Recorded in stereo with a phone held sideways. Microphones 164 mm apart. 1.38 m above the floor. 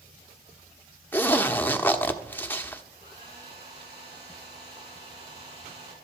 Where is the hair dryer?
85° right, 7.5 m.